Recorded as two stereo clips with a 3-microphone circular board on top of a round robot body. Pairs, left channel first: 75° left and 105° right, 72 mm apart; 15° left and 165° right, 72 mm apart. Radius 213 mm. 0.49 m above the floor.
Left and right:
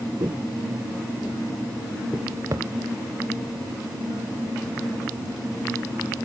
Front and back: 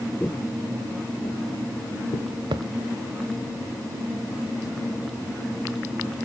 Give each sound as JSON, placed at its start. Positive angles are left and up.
{"t": 0.2, "sound": "footsteps", "azimuth_deg": -65, "distance_m": 0.6}
{"t": 2.5, "sound": "a thud", "azimuth_deg": -155, "distance_m": 0.8}